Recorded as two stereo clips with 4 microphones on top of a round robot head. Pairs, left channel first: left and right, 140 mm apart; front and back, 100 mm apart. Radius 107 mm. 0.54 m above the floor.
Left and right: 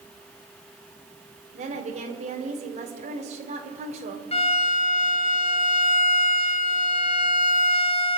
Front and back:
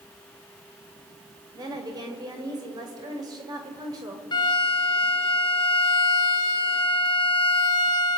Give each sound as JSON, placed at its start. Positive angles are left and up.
{"t": 1.5, "sound": "a woman speaking", "azimuth_deg": -130, "distance_m": 3.0}
{"t": 4.3, "sound": "a violin", "azimuth_deg": 45, "distance_m": 2.0}